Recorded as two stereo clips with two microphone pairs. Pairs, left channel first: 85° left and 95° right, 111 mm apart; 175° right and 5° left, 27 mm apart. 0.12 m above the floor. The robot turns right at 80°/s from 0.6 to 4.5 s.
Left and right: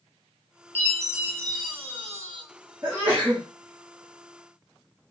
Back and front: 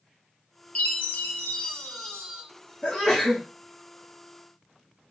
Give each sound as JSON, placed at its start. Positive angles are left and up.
{"t": 0.8, "sound": "a chime", "azimuth_deg": 155, "distance_m": 0.7}
{"t": 2.8, "sound": "a sneeze", "azimuth_deg": -120, "distance_m": 1.5}